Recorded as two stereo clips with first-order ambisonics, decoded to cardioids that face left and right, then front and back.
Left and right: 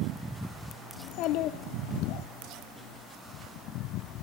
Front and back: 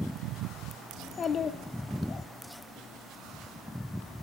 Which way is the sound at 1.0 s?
65° left.